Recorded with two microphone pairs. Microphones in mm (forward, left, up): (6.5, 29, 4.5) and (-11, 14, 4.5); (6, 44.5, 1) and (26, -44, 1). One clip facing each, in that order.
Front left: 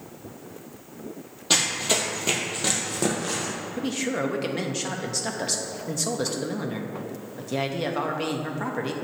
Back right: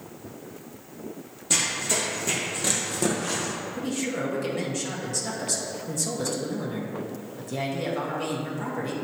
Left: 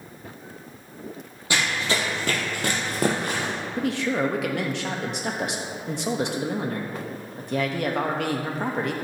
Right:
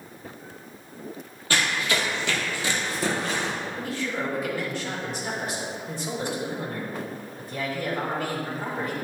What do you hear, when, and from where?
1.5 s running footsteps: 30° left, 1.6 m; by 3.5 s 130° left, 2.5 m
3.8 s a man speaking: 95° left, 1.1 m